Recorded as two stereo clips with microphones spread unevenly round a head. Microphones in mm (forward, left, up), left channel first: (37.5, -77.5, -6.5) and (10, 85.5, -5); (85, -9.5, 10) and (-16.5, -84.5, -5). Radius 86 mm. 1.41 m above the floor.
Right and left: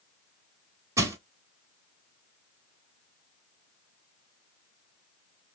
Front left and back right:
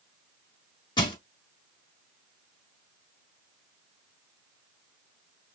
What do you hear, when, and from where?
1.0 s crushing: 35° left, 1.4 m